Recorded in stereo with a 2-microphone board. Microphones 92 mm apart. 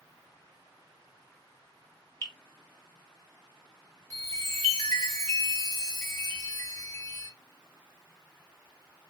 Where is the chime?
35° left (ahead or behind), 2.0 m.